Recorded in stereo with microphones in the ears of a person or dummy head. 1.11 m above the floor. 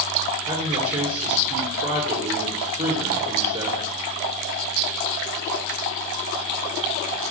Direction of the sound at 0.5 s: 30° right (ahead or behind).